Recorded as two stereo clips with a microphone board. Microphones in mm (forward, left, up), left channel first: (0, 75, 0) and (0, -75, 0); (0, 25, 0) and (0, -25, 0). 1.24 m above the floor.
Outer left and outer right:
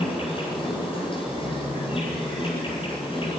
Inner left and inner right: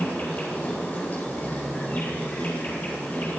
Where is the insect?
35° left (ahead or behind), 9.5 m.